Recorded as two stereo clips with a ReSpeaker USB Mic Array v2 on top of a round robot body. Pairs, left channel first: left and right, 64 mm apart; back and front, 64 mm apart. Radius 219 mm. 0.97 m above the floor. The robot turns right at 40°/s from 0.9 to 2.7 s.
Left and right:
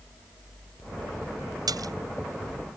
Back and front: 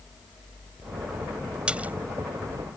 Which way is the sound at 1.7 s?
75° right.